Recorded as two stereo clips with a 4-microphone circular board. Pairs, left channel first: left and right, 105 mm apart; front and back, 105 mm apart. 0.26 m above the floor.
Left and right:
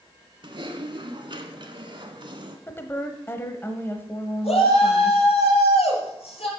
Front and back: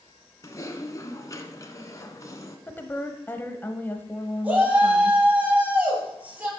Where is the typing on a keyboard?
55° right, 1.4 m.